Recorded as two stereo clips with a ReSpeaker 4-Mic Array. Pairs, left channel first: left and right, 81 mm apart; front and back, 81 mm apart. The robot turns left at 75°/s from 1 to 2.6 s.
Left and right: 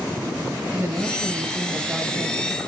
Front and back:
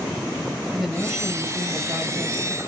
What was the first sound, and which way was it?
A woman speaking, 90° right.